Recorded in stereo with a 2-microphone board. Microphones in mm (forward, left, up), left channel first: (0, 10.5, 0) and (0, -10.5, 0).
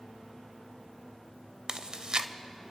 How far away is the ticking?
No ticking in this recording.